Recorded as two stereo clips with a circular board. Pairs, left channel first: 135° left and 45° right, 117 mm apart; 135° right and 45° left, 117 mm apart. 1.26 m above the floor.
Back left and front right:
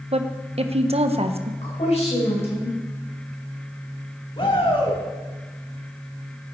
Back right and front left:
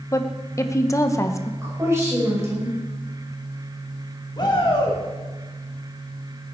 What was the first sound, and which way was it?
A woman speaking, 70° right.